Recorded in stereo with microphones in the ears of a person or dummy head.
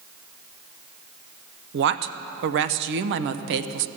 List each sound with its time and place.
1.7 s a woman speaking: 65° right (ahead or behind), 0.6 m